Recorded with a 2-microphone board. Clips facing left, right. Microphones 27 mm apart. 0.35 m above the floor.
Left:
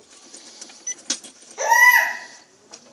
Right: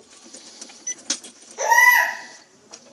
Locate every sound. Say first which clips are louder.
1.6 s a baby crying: left 1 dB; 15° left (ahead or behind), 0.7 m